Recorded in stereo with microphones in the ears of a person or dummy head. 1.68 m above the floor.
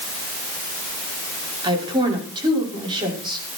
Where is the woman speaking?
20° right (ahead or behind), 5.5 m.